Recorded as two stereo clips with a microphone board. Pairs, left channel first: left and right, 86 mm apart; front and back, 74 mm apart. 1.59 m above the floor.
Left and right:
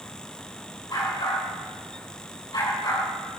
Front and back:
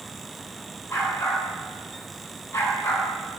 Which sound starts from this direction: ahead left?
A dog barking, at 0.9 s.